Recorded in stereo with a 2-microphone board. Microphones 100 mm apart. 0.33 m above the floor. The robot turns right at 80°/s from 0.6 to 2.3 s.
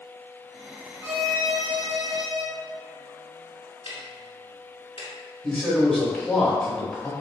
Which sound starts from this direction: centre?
A man speaking, at 5.4 s.